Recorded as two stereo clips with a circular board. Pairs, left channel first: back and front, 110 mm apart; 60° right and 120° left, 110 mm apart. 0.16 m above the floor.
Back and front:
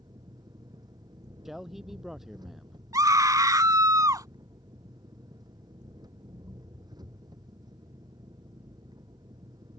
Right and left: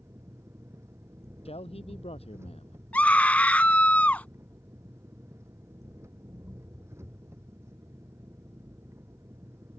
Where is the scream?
5° left.